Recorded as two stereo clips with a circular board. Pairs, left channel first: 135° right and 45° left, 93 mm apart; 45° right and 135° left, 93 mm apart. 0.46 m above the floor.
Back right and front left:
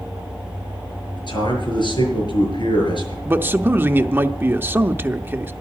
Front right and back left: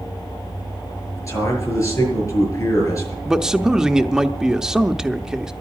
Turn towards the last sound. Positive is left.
turn(degrees=60)